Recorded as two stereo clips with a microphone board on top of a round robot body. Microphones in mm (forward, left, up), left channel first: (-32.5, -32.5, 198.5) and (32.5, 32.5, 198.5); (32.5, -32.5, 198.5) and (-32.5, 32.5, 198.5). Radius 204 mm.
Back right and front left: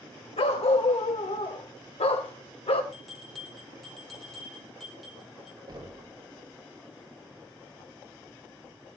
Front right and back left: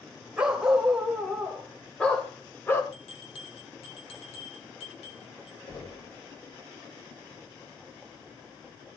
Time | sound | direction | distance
0.4 | a dog barking | 145° right | 2.5 m
2.9 | a bell | 45° right | 1.2 m
5.7 | knocking | 5° left | 4.5 m